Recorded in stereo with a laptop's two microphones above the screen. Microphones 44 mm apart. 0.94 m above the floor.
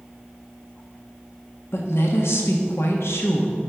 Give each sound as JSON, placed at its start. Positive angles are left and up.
{"t": 1.7, "sound": "a woman speaking", "side_deg": 75, "distance_m": 1.3}